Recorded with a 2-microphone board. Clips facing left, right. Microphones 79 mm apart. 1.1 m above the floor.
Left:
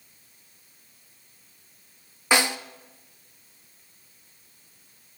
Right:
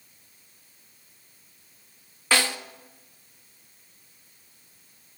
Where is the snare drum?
15° left (ahead or behind), 0.6 m.